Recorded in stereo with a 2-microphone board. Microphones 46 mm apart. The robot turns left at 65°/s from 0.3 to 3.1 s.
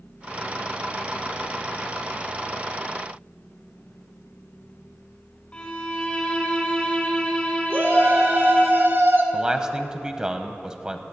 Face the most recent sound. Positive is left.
turn(degrees=-20)  # may be behind; listen again after turning